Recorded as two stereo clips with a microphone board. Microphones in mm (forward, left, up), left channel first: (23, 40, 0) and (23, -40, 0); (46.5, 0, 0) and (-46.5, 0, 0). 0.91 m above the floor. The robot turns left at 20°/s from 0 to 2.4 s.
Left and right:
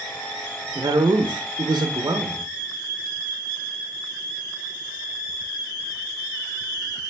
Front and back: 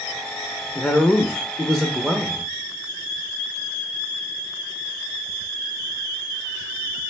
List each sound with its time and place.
0.8 s a man speaking: 70° right, 0.6 m; by 2.5 s 100° right, 0.6 m